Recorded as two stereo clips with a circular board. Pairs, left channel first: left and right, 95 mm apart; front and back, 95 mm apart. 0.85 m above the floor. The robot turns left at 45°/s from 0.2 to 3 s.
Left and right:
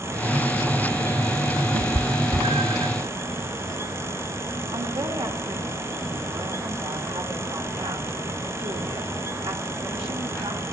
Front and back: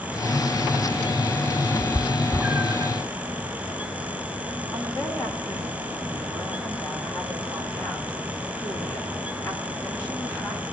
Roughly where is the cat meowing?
Ahead right.